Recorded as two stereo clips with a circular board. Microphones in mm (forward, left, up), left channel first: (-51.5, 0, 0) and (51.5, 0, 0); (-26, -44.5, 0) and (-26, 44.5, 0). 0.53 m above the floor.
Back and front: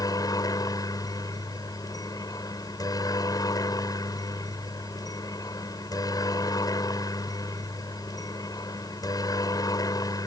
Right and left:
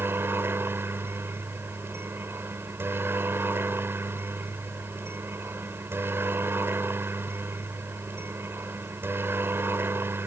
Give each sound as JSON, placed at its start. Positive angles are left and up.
{"t": 0.0, "sound": "a helicopter", "azimuth_deg": 145}